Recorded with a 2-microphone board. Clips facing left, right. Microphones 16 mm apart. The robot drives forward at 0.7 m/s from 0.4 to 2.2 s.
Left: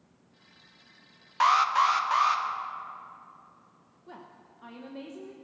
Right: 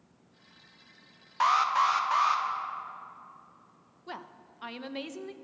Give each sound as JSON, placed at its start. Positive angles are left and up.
{"t": 1.4, "sound": "an alarm", "side_deg": 15, "distance_m": 0.7}
{"t": 4.1, "sound": "a woman speaking", "side_deg": -65, "distance_m": 0.8}